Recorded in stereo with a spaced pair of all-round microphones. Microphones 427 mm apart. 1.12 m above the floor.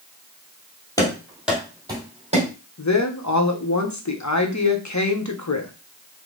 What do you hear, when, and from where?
1.0 s running footsteps: 10° left (ahead or behind), 1.6 m; by 2.5 s 15° right (ahead or behind), 2.5 m
2.8 s a woman speaking: 40° left (ahead or behind), 0.8 m